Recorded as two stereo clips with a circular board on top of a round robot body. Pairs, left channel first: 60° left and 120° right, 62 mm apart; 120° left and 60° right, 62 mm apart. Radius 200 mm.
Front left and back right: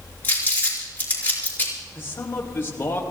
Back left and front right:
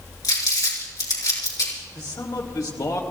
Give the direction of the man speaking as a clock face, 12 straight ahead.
8 o'clock.